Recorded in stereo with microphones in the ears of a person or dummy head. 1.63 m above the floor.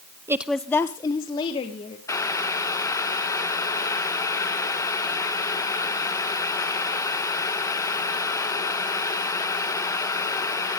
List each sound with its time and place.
0.3 s a woman speaking: 15° right (ahead or behind), 0.6 m; by 2.0 s 35° left (ahead or behind), 2.0 m
2.1 s boiling: 20° left (ahead or behind), 1.6 m